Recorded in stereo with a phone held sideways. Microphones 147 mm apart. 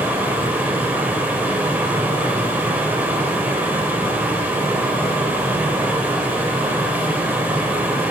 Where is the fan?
15° right (ahead or behind), 4 m.